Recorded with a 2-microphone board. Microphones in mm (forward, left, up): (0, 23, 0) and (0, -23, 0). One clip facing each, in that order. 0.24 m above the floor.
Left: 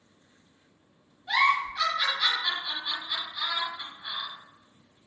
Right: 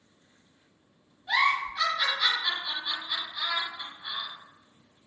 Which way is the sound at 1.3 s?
5° right (ahead or behind).